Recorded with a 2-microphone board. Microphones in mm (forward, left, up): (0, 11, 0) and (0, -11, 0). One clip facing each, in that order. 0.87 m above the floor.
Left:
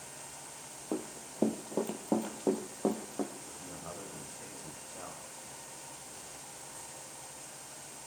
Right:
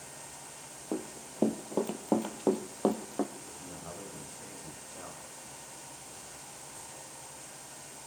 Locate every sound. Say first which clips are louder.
0.9 s running footsteps: right 1 dB; 5° left (ahead or behind), 1.5 m; by 3.2 s 55° right (ahead or behind), 2 m
3.4 s a man speaking: right 1 dB; 15° left (ahead or behind), 4.5 m